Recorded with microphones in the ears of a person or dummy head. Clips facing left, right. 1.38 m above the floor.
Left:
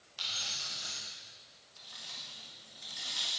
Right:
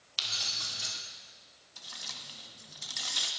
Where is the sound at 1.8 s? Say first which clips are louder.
Right 4 dB; 70° right (ahead or behind), 1.6 m.